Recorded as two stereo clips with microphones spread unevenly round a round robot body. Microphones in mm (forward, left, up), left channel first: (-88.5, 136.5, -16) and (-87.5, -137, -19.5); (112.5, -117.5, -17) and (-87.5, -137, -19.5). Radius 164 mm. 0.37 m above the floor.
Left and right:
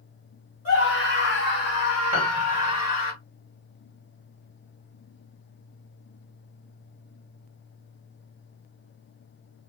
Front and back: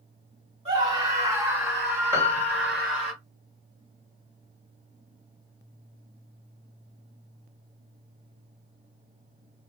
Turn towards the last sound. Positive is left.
turn(degrees=-110)